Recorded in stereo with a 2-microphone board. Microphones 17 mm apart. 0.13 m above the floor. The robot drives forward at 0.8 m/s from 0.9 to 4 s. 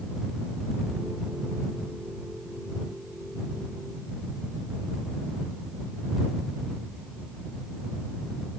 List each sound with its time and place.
Only background noise.